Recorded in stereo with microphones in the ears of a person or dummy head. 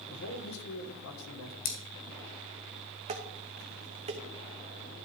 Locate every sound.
0.1 s a man speaking: 85° left, 1.5 m
1.6 s scissors: 60° left (ahead or behind), 2.5 m
3.1 s dishes clattering: 30° right (ahead or behind), 1.2 m